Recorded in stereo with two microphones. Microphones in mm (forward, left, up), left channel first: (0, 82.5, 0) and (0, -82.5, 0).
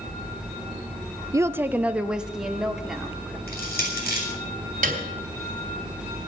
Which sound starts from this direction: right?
A piano, at 4.8 s.